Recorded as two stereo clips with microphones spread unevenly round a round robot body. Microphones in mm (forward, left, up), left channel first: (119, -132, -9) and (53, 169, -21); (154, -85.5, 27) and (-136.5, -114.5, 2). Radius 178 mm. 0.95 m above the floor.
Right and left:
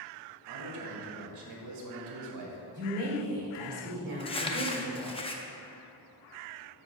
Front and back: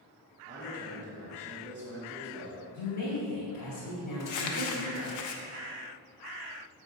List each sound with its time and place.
0.5 s a man speaking: 90° left, 1.3 m
2.7 s a woman speaking: 45° left, 2.5 m
4.2 s crumpling: 5° right, 0.8 m